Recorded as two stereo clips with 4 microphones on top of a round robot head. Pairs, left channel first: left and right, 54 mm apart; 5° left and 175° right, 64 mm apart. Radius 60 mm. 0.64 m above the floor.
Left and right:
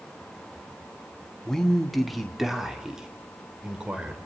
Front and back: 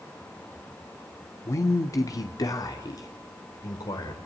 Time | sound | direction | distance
1.4 | a man speaking | 15° left | 1.5 m